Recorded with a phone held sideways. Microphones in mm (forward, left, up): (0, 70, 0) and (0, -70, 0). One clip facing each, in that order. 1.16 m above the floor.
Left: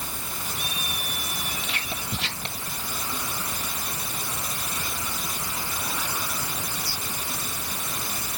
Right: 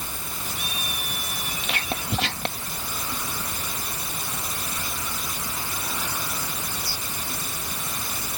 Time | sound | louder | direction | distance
1.6 | whispering | right 4 dB | 65° right (ahead or behind) | ?